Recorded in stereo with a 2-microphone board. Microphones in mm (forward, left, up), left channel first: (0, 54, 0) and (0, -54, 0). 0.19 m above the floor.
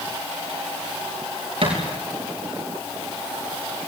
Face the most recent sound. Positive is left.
turn(degrees=-60)  # may be behind; listen again after turning